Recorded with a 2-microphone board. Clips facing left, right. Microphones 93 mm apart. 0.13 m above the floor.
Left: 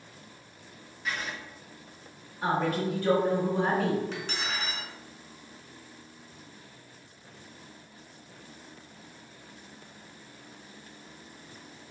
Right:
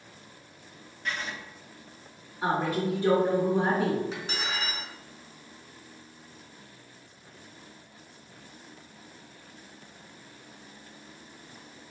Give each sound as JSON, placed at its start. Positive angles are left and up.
{"t": 1.1, "sound": "writing", "side_deg": 5, "distance_m": 0.6}
{"t": 2.4, "sound": "a woman speaking", "side_deg": -20, "distance_m": 1.6}
{"t": 4.1, "sound": "cutlery clinking", "side_deg": -5, "distance_m": 0.9}